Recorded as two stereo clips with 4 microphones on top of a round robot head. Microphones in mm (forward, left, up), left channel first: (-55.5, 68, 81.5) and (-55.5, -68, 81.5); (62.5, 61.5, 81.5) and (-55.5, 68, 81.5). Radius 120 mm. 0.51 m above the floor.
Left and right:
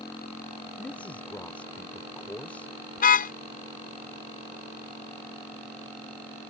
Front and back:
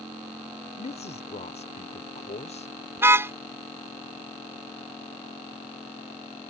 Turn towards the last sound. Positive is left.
turn(degrees=105)